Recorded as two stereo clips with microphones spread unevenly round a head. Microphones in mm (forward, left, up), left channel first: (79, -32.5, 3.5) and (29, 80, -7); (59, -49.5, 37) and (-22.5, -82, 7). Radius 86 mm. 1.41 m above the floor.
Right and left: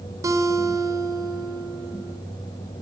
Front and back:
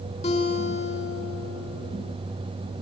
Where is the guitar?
50° left, 4 m.